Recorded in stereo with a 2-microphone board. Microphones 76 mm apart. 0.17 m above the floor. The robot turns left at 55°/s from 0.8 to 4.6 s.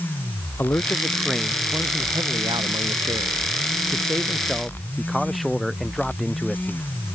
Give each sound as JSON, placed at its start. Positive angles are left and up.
{"t": 0.6, "sound": "a man speaking", "azimuth_deg": 25}